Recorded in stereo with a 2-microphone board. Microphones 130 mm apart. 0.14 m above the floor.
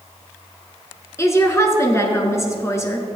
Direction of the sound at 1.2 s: 25° left (ahead or behind).